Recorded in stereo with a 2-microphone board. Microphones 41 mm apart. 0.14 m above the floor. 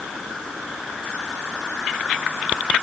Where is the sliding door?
No sliding door in this recording.